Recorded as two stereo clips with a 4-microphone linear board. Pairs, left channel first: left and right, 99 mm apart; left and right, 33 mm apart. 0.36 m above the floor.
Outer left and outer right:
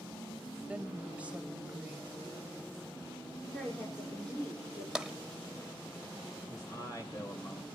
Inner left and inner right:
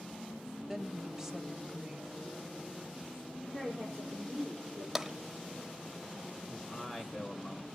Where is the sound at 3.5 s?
10° left (ahead or behind), 4.5 m.